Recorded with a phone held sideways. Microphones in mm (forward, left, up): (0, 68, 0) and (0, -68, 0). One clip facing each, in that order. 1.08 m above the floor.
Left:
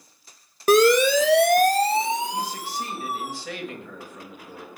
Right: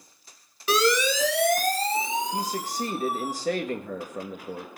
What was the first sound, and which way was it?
A siren, 45° left (ahead or behind).